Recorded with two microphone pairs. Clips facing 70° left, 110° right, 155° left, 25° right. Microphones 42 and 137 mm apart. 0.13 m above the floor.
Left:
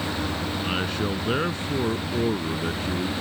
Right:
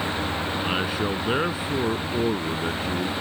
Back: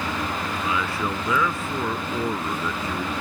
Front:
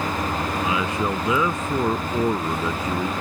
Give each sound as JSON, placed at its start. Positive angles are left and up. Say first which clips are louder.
{"t": 0.6, "sound": "a man speaking", "louder": "right 1 dB, front 2 dB", "azimuth_deg": -35}